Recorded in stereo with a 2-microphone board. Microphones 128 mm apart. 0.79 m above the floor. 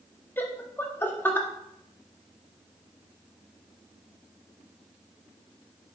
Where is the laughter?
15° left (ahead or behind), 1.3 m.